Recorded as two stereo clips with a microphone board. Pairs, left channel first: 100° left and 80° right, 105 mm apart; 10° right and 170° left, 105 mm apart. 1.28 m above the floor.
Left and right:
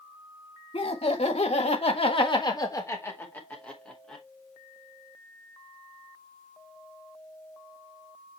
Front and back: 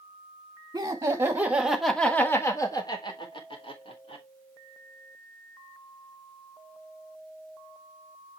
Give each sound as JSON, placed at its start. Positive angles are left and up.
{"t": 0.7, "sound": "laughter", "azimuth_deg": 115, "distance_m": 2.0}